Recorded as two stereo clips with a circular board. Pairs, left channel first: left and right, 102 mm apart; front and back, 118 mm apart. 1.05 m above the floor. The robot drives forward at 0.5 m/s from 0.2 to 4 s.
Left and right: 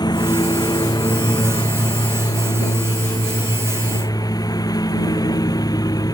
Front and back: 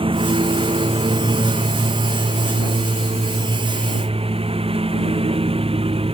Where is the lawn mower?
140° left.